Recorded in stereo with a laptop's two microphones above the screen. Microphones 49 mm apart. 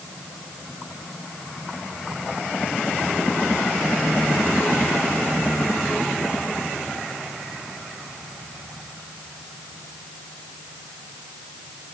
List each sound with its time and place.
Only background noise.